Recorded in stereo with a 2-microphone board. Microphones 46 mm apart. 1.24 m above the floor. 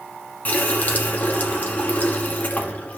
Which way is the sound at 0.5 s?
35° left (ahead or behind).